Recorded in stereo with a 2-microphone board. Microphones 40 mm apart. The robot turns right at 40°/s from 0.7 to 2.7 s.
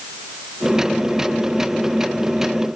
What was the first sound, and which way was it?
Only background noise.